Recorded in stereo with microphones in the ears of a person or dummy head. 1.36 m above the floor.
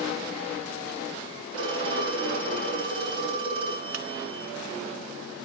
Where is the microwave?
85° right, 0.8 m.